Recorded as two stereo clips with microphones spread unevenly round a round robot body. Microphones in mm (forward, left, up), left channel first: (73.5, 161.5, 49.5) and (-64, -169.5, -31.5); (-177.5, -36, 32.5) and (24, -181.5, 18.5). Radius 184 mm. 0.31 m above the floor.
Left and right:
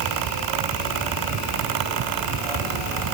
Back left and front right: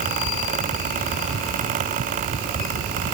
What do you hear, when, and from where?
Only background noise.